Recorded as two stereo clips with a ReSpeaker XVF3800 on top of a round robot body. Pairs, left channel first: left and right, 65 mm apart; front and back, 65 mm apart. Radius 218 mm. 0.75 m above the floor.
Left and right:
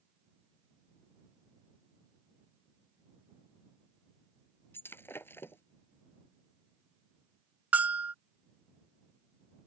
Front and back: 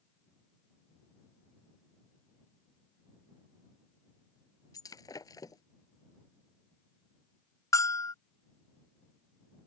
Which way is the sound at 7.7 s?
30° right.